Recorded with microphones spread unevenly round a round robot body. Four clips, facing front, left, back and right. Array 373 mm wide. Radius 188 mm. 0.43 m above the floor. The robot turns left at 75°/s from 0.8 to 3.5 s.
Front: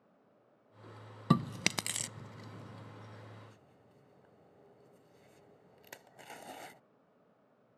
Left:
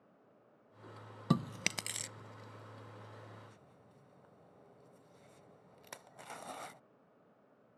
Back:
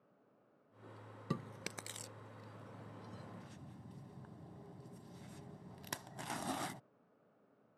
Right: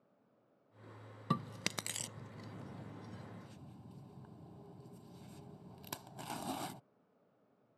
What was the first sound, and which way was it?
Chewing, 30° left.